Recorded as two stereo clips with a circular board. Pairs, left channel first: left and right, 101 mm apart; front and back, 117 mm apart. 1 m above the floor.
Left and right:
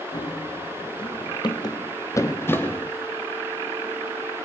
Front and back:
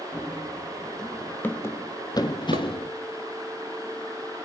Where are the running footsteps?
100° left, 1.9 m; by 2.9 s 20° left, 1.6 m.